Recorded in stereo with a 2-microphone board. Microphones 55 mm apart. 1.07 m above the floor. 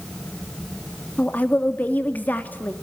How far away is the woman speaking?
About 2 m.